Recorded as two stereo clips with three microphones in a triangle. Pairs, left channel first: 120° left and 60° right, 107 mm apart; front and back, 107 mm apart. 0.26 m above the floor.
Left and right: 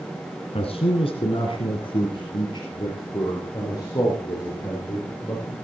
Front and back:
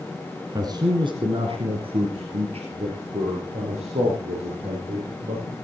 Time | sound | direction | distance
0.6 | a man speaking | 130° left | 2.5 m